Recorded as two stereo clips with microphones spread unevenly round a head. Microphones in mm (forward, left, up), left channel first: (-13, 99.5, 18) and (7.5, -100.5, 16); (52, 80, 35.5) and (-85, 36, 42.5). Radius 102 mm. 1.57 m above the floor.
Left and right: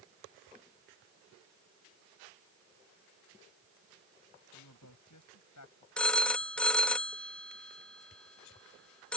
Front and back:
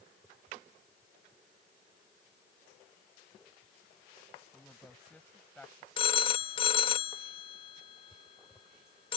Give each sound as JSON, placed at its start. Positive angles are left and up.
{"t": 4.5, "sound": "a woman speaking", "azimuth_deg": 100}
{"t": 6.0, "sound": "a phone ringing", "azimuth_deg": 15}